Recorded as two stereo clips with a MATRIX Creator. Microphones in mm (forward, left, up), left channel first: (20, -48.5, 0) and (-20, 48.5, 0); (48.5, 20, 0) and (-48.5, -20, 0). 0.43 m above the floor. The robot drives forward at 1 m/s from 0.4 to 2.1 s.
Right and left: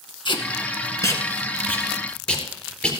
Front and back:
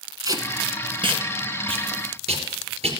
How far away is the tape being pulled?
About 1.4 m.